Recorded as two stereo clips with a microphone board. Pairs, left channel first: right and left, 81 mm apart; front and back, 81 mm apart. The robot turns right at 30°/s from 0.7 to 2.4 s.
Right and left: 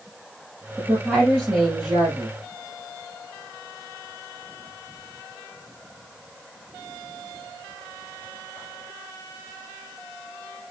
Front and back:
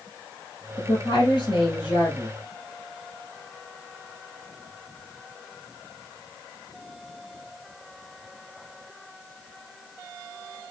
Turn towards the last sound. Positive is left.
turn(degrees=50)